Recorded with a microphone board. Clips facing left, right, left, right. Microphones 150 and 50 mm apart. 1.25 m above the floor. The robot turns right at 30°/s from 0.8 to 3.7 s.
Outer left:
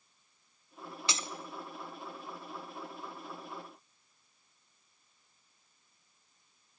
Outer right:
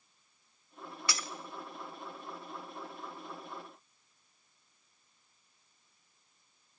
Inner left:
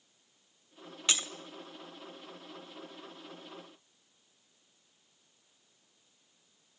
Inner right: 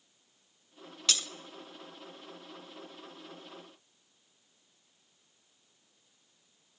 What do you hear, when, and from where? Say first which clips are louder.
1.1 s breaking glass: even, inner left 1 dB; 25° left (ahead or behind), 0.8 m